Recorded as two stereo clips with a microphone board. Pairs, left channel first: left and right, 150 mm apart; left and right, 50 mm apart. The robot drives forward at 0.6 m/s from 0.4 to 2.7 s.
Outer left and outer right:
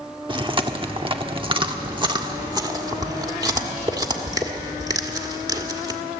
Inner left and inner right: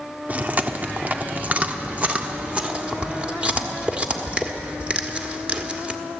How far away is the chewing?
About 1.2 m.